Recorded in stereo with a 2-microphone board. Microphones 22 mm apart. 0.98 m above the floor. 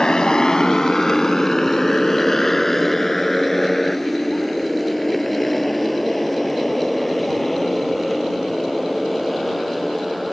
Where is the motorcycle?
35° left (ahead or behind); by 10.3 s centre (ahead or behind).